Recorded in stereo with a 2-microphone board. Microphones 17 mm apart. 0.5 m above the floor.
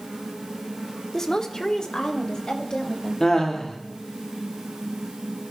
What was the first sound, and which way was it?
A woman speaking, 30° left (ahead or behind).